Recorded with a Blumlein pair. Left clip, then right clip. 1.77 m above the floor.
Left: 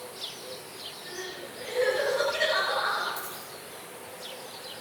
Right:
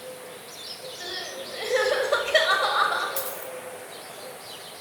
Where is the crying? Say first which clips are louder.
Right 6 dB; 50° right, 8 m.